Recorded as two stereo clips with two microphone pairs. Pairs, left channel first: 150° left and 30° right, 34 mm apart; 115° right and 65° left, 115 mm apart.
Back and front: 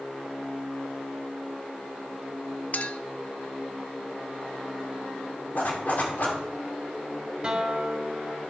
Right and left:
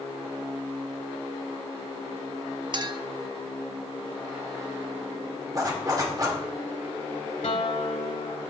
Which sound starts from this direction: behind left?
A zipper, at 5.5 s.